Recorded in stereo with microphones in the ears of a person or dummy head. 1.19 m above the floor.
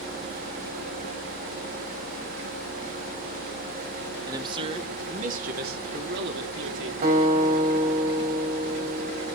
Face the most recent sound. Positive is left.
turn(degrees=-50)  # may be behind; listen again after turning